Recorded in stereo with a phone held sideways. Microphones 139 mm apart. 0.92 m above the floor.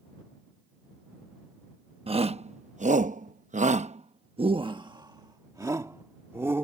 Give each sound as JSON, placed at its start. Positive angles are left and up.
{"t": 2.1, "sound": "a shout", "side_deg": -45}